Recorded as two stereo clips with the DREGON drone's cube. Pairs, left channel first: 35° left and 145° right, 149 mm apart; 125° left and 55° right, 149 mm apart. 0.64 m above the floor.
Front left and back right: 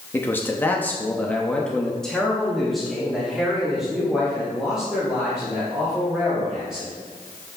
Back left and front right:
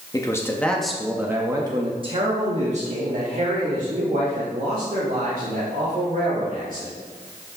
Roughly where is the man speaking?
Left.